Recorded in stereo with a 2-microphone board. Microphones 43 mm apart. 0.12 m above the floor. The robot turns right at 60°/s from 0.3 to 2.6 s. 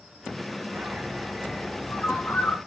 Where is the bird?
40° right, 7 m; by 2.6 s 70° left, 7 m.